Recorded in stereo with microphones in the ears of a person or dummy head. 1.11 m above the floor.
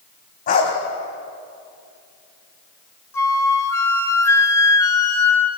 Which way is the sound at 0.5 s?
50° left (ahead or behind).